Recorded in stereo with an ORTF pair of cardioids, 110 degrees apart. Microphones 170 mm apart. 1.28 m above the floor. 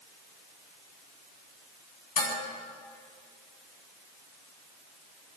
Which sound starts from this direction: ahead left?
Dishes clattering, at 2.2 s.